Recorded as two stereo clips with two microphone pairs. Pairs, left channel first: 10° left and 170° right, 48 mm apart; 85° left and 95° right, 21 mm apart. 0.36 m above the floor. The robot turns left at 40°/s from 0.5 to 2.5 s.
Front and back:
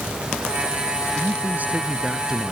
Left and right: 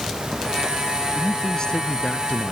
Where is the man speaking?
150° left; by 2.5 s 95° left.